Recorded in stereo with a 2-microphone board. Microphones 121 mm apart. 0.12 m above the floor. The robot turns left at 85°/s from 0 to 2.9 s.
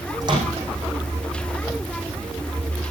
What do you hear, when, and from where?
0.2 s a microwave: 30° right (ahead or behind), 6 m; by 0.7 s 70° right (ahead or behind), 6 m